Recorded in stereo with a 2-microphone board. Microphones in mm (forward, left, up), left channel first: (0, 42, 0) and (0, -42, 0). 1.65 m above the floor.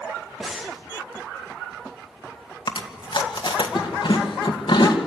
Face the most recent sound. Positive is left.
turn(degrees=75)  # may be behind; listen again after turning